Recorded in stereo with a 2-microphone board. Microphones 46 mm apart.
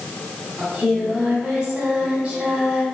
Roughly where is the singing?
Right.